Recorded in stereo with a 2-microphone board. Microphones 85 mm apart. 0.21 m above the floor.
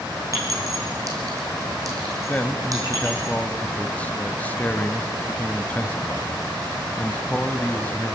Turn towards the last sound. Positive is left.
turn(degrees=20)  # may be behind; listen again after turning